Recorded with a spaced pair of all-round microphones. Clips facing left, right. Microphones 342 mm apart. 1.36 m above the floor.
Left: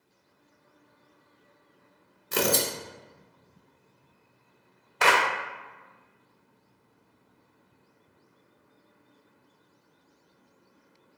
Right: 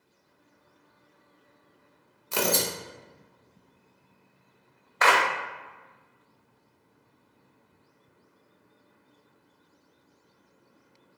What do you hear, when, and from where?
2.3 s tearing paper: 25° left (ahead or behind), 0.7 m
5.0 s a clap: 40° left (ahead or behind), 0.8 m